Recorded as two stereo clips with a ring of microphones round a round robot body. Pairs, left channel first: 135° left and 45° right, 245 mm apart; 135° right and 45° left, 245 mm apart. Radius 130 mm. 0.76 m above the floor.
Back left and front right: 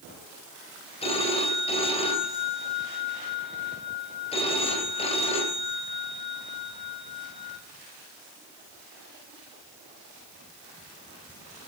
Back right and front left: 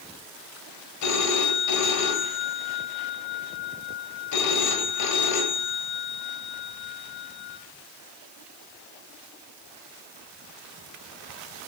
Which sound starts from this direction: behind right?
A phone ringing, at 1.0 s.